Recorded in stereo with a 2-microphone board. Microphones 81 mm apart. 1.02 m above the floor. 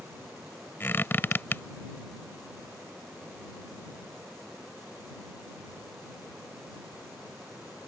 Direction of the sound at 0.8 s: 25° left (ahead or behind).